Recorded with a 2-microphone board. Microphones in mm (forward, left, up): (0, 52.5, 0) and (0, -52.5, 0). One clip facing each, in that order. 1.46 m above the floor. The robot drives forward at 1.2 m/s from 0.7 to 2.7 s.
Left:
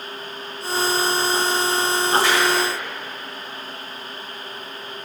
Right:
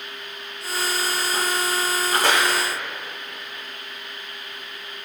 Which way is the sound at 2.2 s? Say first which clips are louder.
Left 1 dB; 45° right (ahead or behind).